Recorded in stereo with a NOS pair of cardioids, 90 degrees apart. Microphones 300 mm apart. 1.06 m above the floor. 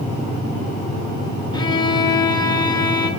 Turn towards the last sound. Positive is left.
turn(degrees=15)